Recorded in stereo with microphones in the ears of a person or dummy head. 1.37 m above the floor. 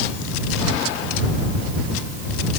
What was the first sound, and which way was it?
Only background noise.